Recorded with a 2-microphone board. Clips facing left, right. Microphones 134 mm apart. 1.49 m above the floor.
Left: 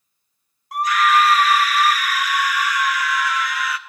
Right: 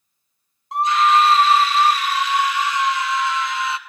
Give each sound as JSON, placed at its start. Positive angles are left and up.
{"t": 0.7, "sound": "a scream", "side_deg": -25, "distance_m": 0.7}